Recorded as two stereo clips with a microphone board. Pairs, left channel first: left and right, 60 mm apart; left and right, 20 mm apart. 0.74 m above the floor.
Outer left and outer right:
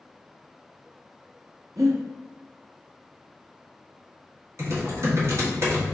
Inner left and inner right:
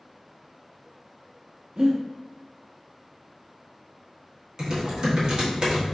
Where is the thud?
No thud in this recording.